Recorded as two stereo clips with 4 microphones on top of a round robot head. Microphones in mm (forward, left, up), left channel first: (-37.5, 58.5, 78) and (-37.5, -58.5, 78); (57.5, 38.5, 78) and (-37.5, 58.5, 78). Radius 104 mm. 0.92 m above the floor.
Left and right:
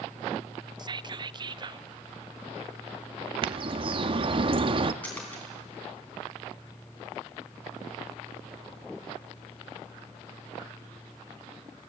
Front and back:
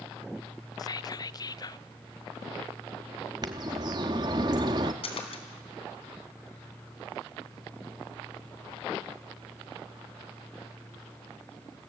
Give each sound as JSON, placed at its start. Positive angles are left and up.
{"t": 0.8, "sound": "whispering", "azimuth_deg": -50, "distance_m": 0.6}
{"t": 3.4, "sound": "a bird", "azimuth_deg": -135, "distance_m": 0.7}
{"t": 5.0, "sound": "a splash", "azimuth_deg": 10, "distance_m": 4.0}